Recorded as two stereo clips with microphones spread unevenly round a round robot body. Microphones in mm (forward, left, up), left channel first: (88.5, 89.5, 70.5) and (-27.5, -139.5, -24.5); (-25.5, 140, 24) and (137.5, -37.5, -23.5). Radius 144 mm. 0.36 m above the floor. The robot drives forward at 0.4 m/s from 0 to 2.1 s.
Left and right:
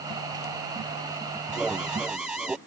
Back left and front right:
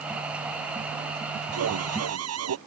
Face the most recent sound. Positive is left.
turn(degrees=-30)